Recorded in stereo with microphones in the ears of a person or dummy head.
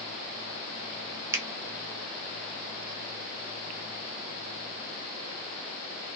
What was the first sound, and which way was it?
A finger snap, 15° right (ahead or behind).